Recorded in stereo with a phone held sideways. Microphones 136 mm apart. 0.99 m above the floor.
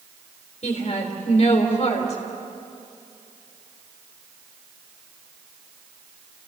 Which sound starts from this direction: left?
A woman speaking, at 0.6 s.